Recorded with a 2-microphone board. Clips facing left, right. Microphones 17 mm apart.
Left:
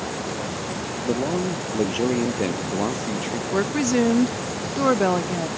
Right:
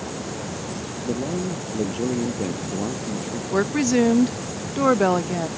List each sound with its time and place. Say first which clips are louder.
1.0 s a man speaking: left 3 dB; 40° left (ahead or behind)
3.5 s a woman speaking: right 2 dB; 5° right (ahead or behind)